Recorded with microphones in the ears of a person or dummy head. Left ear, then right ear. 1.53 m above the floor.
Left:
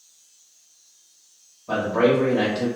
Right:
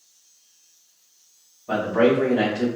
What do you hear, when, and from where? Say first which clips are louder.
1.7 s a man speaking: even; centre (ahead or behind), 1.2 m